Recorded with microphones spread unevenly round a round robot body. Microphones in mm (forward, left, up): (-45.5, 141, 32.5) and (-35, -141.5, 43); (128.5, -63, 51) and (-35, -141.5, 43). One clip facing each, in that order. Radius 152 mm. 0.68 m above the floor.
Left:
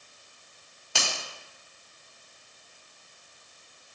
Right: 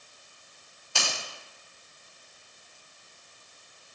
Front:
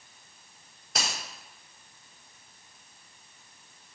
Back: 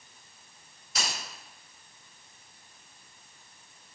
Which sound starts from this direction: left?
A finger snap, at 0.9 s.